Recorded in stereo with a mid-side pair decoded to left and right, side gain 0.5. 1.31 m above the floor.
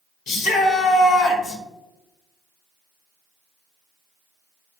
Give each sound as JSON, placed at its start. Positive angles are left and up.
{"t": 0.3, "sound": "a shout", "azimuth_deg": 70, "distance_m": 0.9}